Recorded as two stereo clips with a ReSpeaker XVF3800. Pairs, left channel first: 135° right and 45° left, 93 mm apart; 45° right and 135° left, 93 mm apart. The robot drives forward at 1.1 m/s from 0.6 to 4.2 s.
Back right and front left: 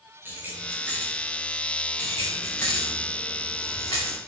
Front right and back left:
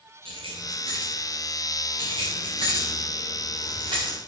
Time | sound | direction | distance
0.2 | keys jangling | 115° left | 6 m
2.0 | keys jangling | 160° left | 6 m